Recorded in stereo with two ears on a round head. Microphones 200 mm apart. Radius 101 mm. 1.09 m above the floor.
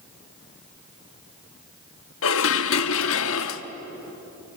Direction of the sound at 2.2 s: 60° left (ahead or behind).